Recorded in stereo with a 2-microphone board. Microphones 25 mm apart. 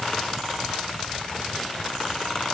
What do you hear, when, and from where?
Only background noise.